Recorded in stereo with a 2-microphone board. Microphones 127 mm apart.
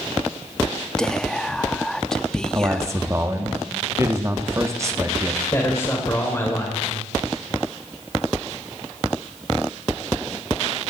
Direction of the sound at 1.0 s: 5° left (ahead or behind).